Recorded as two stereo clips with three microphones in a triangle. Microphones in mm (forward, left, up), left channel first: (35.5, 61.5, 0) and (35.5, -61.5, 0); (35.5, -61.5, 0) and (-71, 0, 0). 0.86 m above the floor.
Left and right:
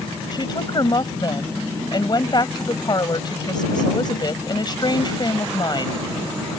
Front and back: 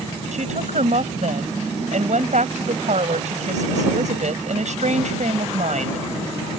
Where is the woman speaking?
140° left.